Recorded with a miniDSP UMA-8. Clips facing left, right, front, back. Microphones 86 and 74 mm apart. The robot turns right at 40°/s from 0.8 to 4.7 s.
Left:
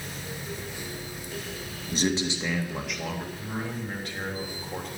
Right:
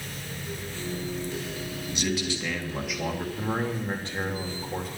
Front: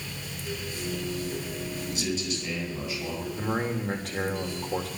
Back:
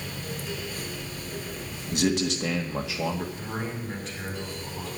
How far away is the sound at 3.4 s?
About 3.5 m.